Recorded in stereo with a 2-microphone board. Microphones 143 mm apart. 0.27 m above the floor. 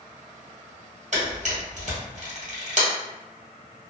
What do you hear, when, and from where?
1.1 s a camera shutter: 60° right (ahead or behind), 1.5 m